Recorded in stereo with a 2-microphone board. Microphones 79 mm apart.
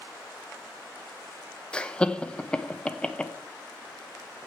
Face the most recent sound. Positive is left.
turn(degrees=10)  # may be behind; listen again after turning